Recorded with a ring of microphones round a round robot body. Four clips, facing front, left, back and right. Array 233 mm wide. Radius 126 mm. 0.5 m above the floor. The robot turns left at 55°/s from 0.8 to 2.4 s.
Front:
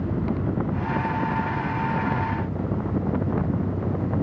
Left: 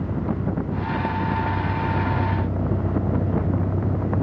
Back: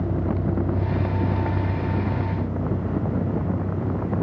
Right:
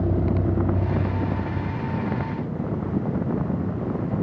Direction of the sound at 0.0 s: 110° right.